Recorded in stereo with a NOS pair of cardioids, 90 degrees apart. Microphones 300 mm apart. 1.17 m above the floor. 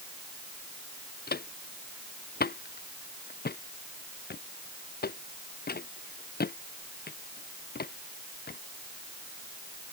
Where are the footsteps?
30° left.